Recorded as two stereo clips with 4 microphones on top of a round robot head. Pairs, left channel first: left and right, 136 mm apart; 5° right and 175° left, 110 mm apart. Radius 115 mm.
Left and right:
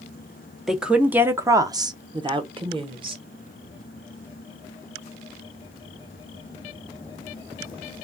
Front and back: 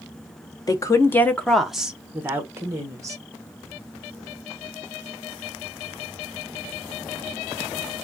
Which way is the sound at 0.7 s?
Straight ahead.